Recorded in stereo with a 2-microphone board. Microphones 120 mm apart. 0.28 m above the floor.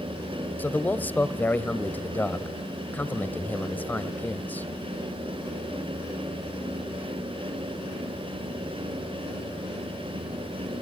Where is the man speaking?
15° left (ahead or behind), 0.9 m.